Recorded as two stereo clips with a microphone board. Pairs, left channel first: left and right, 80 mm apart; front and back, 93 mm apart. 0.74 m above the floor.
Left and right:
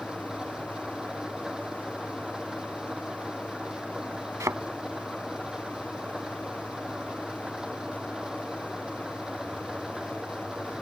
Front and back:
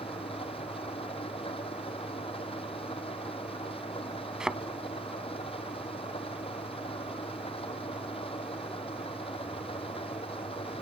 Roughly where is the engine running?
Ahead.